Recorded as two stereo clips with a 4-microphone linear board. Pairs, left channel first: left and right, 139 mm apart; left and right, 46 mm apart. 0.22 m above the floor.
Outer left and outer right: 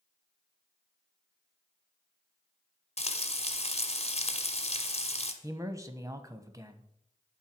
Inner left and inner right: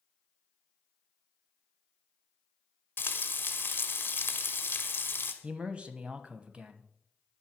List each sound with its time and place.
3.0 s frying: 50° left (ahead or behind), 1.5 m
5.4 s a man speaking: 25° right (ahead or behind), 1.0 m